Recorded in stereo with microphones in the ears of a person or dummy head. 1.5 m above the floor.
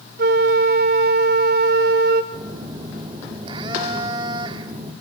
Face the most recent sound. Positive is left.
turn(degrees=-30)  # may be behind; listen again after turning